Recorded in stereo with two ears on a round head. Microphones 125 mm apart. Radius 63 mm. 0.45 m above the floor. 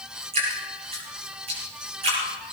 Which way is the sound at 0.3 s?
50° right (ahead or behind).